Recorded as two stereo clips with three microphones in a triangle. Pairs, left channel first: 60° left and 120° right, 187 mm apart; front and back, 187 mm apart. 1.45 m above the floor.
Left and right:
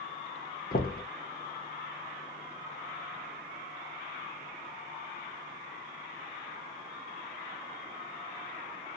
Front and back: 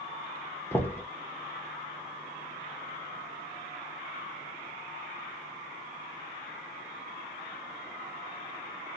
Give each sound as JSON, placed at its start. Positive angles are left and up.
{"t": 0.7, "sound": "knocking", "azimuth_deg": 75, "distance_m": 0.9}